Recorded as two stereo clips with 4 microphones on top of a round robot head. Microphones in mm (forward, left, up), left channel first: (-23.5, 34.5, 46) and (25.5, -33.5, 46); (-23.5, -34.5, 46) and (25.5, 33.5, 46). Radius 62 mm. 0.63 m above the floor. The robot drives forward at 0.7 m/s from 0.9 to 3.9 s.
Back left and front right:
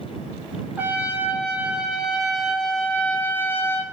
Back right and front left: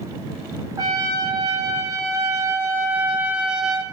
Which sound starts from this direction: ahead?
A trumpet, at 0.8 s.